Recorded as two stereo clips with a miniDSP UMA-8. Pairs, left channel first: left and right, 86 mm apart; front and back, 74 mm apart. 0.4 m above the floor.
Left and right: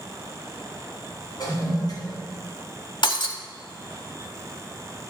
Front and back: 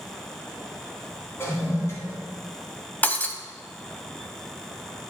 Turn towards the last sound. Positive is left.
turn(degrees=65)